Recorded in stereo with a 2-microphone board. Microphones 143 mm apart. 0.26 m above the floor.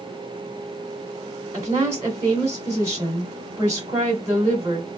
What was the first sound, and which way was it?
A woman speaking, 20° right (ahead or behind).